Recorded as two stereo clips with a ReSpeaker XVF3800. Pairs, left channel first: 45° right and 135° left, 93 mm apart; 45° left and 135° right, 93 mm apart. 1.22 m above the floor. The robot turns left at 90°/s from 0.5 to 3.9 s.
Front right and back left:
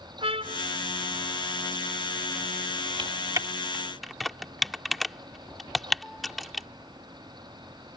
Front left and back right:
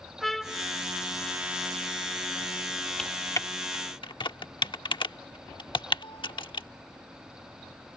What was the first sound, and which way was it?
A trumpet, 135° left.